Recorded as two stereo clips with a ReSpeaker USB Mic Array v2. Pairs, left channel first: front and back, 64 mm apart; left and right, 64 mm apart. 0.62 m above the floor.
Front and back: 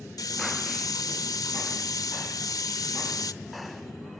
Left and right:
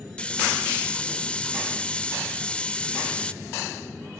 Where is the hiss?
15° left, 0.6 m.